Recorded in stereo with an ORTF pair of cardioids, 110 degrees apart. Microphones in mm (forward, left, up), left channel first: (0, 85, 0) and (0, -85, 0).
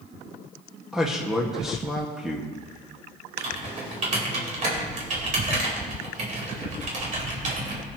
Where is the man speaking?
Straight ahead, 1.6 m.